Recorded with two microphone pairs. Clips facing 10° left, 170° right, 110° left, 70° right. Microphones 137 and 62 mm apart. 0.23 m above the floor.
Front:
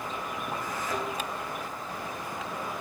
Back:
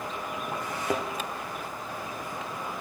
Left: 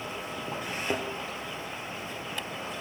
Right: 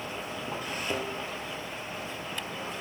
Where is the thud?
170° left, 2.5 m.